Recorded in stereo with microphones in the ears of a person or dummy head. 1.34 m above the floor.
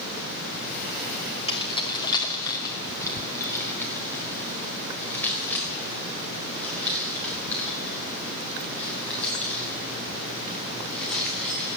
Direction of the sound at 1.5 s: 30° left (ahead or behind).